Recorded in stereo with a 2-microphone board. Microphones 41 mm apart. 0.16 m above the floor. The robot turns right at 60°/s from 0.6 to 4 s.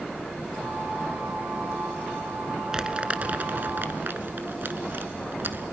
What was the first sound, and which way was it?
Crumpling, 15° right (ahead or behind).